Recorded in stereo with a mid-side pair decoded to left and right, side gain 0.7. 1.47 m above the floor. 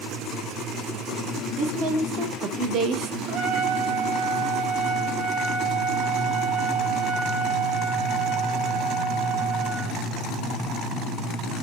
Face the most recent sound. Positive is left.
turn(degrees=-65)